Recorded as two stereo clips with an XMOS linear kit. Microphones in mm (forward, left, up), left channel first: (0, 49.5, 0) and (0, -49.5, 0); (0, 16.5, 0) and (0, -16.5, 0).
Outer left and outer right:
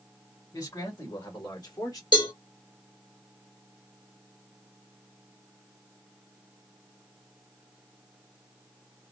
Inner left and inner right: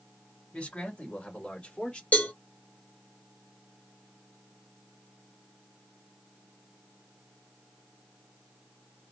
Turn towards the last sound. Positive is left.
turn(degrees=50)  # may be behind; listen again after turning